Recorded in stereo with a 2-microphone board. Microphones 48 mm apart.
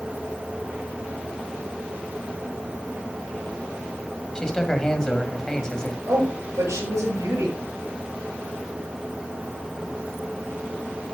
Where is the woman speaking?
75° right (ahead or behind), 6 m.